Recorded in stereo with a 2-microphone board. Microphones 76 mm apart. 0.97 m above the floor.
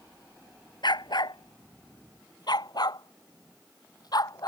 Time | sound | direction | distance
0.8 | a dog barking | 75° left (ahead or behind) | ?